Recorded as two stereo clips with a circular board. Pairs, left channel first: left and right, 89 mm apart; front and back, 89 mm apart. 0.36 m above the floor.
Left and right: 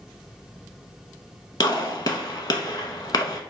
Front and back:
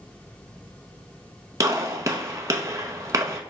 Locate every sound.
1.6 s a gunshot: 130° left, 0.6 m